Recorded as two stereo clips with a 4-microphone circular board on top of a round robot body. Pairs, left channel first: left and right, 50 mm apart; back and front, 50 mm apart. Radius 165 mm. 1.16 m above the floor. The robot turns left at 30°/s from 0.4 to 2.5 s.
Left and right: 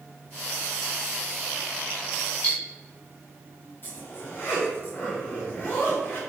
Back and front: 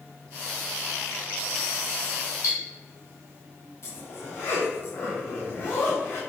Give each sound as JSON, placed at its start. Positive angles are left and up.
{"t": 2.4, "sound": "cutlery clinking", "azimuth_deg": 160, "distance_m": 1.5}
{"t": 3.8, "sound": "a zipper", "azimuth_deg": 140, "distance_m": 0.6}